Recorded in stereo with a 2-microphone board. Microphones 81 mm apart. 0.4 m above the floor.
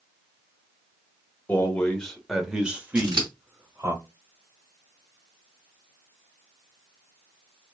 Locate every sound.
1.5 s a man speaking: 25° left (ahead or behind), 0.9 m; by 4.0 s 35° right (ahead or behind), 1.4 m
3.0 s scissors: 60° right (ahead or behind), 1.6 m